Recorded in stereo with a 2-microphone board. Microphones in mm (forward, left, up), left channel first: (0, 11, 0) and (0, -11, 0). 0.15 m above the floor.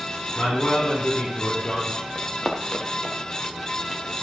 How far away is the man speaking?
About 5 m.